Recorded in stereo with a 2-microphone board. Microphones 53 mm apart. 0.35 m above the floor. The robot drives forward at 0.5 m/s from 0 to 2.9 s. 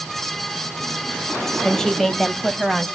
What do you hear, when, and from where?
1.6 s a woman speaking: 10° left (ahead or behind), 1.4 m; by 2.9 s 5° left (ahead or behind), 1.9 m